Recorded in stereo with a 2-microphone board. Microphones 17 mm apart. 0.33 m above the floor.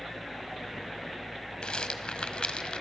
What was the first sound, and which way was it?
A rattle, 60° left (ahead or behind).